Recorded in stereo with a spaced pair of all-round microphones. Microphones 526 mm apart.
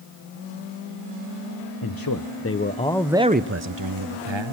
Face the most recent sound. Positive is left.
turn(degrees=-60)  # may be behind; listen again after turning